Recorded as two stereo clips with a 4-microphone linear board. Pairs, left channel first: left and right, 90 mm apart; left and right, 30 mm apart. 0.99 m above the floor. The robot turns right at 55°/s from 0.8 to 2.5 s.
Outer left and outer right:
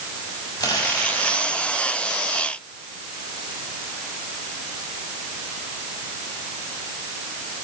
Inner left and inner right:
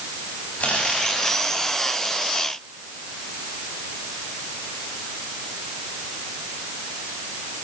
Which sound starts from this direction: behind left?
Crumpling, at 0.6 s.